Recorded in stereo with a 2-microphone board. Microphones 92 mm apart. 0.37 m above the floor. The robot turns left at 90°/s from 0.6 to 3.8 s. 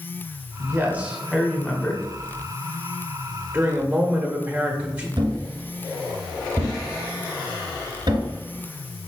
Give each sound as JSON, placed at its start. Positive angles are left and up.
{"t": 0.6, "sound": "a man speaking", "azimuth_deg": -110, "distance_m": 0.9}
{"t": 3.5, "sound": "a woman speaking", "side_deg": -20, "distance_m": 0.8}
{"t": 5.2, "sound": "a thud", "side_deg": -55, "distance_m": 1.1}